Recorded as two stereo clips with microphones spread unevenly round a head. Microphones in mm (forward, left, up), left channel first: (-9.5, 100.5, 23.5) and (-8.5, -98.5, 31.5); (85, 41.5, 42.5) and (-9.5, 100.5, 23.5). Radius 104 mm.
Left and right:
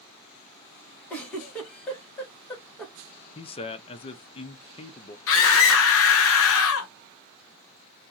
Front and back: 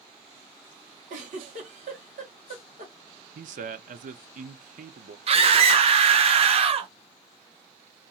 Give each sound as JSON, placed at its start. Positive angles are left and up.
{"t": 1.1, "sound": "a giggle", "azimuth_deg": 175, "distance_m": 1.1}
{"t": 3.4, "sound": "a man speaking", "azimuth_deg": 155, "distance_m": 0.5}
{"t": 5.3, "sound": "a scream", "azimuth_deg": 110, "distance_m": 0.8}